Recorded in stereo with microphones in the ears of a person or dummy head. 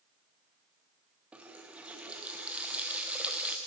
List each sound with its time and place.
1.3 s a running tap: 5° right (ahead or behind), 0.7 m